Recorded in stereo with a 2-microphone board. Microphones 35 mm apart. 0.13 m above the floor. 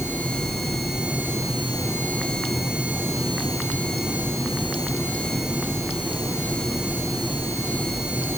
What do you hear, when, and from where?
Only background noise.